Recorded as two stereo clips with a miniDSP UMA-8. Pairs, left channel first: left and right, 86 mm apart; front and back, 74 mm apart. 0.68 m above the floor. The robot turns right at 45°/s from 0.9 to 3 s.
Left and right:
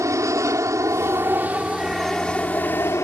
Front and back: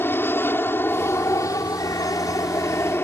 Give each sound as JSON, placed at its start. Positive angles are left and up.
{"t": 0.0, "sound": "an aircraft", "azimuth_deg": -50}